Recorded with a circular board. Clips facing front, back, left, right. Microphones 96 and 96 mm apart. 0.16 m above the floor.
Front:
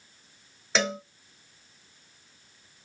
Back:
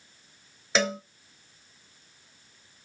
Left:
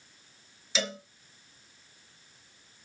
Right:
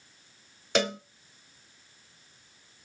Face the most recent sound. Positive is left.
turn(degrees=-90)